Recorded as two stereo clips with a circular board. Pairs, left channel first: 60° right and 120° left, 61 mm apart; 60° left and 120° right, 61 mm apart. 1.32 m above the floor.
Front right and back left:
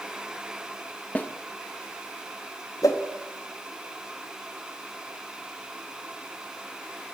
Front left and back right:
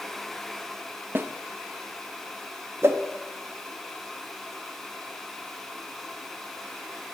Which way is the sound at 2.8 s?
75° right.